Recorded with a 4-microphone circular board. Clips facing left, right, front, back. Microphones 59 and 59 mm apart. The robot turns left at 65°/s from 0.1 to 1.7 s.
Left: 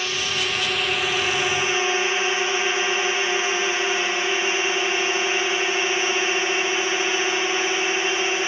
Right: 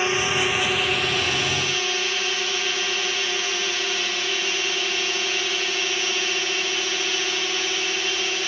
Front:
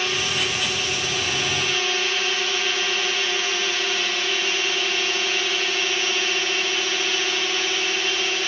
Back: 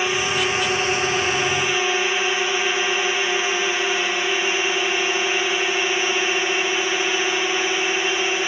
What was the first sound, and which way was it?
A drone, 125° right.